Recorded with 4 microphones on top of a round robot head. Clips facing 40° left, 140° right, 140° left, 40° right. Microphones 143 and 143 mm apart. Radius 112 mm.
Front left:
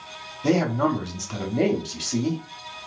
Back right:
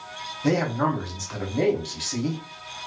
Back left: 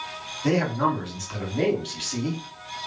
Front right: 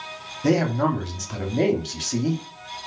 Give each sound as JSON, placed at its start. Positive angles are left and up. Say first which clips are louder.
{"t": 0.4, "sound": "a man speaking", "louder": "front left 2 dB, front right 2 dB", "azimuth_deg": -25, "distance_m": 0.9}